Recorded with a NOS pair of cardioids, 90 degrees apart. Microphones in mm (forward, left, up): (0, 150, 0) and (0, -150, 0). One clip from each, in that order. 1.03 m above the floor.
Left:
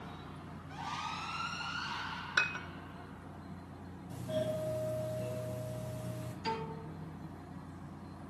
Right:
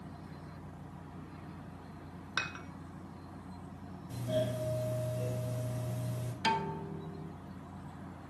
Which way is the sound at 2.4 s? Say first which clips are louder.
Left 5 dB; 25° left.